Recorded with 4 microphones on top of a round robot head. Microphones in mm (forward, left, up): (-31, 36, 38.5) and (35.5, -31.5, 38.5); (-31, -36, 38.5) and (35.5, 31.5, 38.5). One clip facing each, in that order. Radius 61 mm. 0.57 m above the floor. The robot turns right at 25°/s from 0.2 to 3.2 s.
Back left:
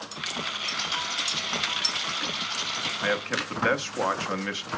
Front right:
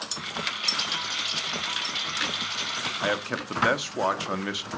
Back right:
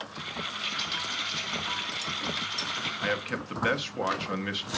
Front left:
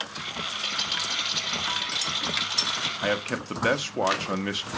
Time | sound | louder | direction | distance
0.6 | a rattle | back left 1 dB, front left 2 dB | 10° right | 5.5 m
3.0 | a man speaking | even, front left 4 dB | 20° left | 0.9 m